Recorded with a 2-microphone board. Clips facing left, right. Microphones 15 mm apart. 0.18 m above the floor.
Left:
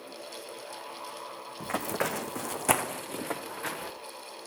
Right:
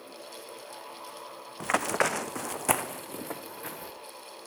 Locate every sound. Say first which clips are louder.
1.6 s running footsteps: right 5 dB; 50° right (ahead or behind), 0.7 m; by 3.9 s 35° left (ahead or behind), 1.1 m